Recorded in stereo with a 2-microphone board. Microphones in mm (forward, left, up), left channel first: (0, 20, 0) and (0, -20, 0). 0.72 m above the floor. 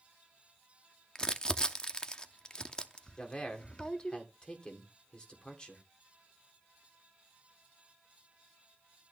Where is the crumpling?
20° left (ahead or behind), 0.7 m.